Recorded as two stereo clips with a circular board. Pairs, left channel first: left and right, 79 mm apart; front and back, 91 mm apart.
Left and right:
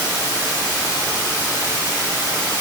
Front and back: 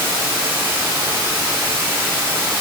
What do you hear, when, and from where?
0.0 s running water: 115° left, 3 m